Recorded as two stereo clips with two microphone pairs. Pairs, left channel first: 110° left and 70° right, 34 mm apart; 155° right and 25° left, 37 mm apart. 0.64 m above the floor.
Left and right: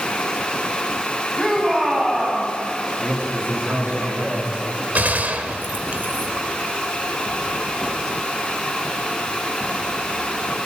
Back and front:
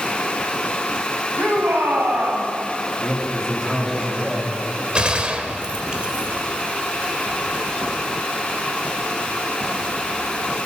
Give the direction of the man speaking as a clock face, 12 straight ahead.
2 o'clock.